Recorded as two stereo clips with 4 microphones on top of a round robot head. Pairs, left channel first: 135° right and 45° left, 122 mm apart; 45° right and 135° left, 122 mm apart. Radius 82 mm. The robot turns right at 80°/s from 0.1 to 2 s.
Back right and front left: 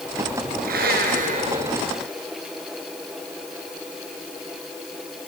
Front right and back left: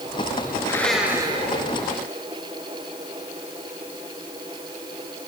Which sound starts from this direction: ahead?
A blender, at 0.6 s.